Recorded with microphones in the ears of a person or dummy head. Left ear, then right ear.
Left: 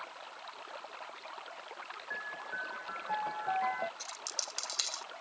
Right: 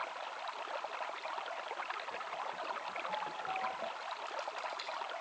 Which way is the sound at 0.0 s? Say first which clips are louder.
Right 5 dB; 25° right (ahead or behind).